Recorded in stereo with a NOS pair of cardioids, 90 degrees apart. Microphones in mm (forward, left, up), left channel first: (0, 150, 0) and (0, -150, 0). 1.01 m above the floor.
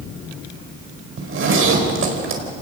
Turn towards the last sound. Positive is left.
turn(degrees=-45)